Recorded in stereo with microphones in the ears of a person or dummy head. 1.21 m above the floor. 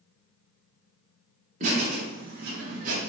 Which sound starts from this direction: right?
Laughter, at 1.6 s.